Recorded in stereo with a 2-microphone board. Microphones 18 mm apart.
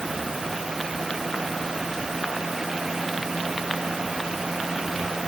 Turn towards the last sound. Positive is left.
No sound to turn to.